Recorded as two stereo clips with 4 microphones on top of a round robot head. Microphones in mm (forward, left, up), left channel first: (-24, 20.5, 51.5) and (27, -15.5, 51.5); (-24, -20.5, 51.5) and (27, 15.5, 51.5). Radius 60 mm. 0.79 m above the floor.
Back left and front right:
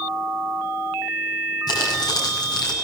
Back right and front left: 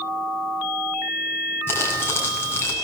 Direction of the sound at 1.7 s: 160° left.